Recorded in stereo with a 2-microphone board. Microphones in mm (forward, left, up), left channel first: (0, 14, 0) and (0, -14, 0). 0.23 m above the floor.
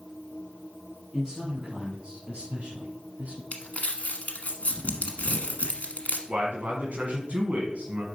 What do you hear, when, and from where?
1.1 s a man speaking: 15° right (ahead or behind), 2.5 m; by 3.4 s 55° right (ahead or behind), 1.7 m
3.5 s crumpling: 60° left (ahead or behind), 1.1 m
6.3 s a man speaking: 55° right (ahead or behind), 2.0 m